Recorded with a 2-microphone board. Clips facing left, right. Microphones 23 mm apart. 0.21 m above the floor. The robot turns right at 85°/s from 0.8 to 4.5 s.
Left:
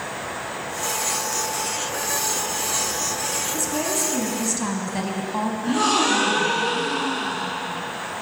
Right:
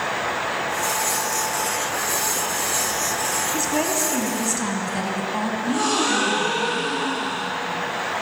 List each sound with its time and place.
3.5 s a woman speaking: 70° right, 1.3 m; by 5.5 s 10° left, 1.3 m
5.6 s a gasp: 5° left (ahead or behind), 4.5 m